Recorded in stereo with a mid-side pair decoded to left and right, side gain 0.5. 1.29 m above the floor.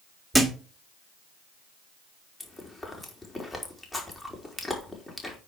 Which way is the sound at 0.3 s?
5° right.